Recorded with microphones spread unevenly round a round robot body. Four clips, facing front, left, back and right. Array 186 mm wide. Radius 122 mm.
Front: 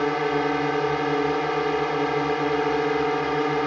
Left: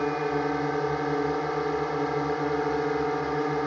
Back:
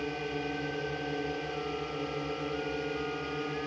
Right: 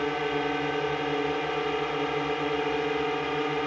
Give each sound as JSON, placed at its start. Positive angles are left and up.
{"t": 0.0, "sound": "a drone", "azimuth_deg": -5}